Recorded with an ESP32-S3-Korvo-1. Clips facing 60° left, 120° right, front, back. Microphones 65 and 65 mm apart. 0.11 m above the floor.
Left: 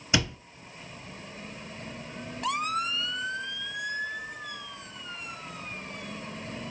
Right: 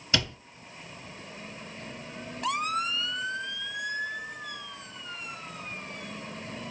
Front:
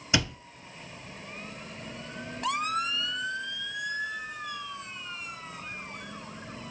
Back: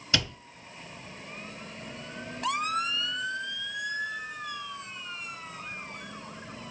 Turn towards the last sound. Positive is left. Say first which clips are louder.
# left 2 dB, front 2 dB
turn(degrees=30)